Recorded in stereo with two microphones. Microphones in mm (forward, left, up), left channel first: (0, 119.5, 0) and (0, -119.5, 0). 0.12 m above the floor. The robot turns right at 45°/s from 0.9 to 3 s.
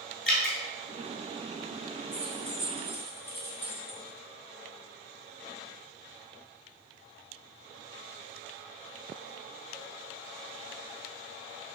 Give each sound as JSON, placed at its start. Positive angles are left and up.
{"t": 0.3, "sound": "dripping", "side_deg": 50, "distance_m": 0.7}
{"t": 2.1, "sound": "keys jangling", "side_deg": 30, "distance_m": 0.9}